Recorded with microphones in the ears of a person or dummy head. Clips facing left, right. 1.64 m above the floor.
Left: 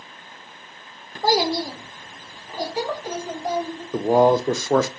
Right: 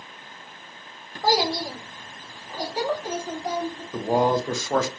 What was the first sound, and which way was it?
A child speaking, 35° left (ahead or behind).